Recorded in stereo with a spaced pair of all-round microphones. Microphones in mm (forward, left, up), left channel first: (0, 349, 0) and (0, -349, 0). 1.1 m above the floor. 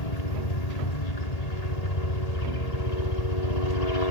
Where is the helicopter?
65° left (ahead or behind).